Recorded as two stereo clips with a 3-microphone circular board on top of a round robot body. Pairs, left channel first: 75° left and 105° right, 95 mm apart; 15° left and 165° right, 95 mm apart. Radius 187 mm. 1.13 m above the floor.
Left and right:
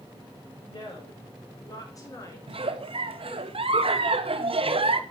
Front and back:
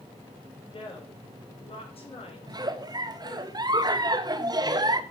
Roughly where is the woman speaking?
Ahead left.